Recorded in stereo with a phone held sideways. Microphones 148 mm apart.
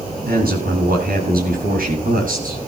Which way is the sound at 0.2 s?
80° right.